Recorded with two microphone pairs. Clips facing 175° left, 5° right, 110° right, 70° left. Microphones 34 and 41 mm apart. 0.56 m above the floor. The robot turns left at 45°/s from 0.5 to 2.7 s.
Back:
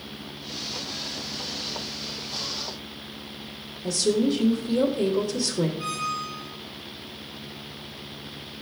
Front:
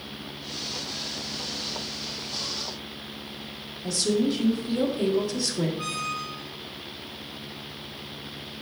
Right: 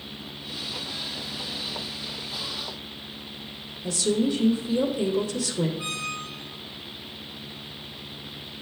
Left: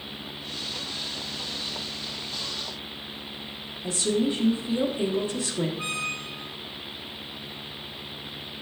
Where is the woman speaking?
75° left, 1.2 m.